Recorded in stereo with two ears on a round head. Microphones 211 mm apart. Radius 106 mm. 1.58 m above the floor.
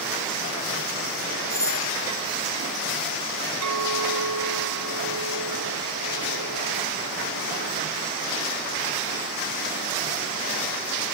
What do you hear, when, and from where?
1.5 s a doorbell: 15° left (ahead or behind)
3.6 s a clink: 85° right